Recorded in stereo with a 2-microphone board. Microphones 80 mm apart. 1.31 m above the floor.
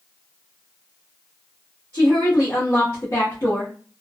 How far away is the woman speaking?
About 0.9 m.